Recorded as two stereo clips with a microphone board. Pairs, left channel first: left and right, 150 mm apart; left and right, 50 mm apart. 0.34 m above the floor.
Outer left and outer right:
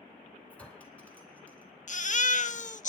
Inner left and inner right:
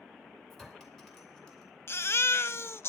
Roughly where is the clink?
Centre.